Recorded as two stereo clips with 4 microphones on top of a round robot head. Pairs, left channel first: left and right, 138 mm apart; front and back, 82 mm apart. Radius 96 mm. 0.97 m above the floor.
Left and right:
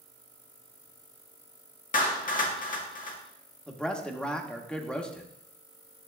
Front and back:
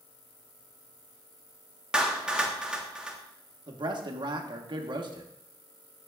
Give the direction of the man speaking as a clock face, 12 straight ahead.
6 o'clock.